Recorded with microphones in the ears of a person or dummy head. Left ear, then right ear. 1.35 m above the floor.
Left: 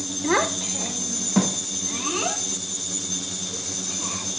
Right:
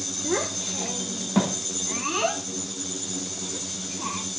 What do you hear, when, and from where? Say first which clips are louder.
0.2 s a child speaking: left 6 dB; 20° left (ahead or behind), 0.5 m; by 4.2 s 20° right (ahead or behind), 3.5 m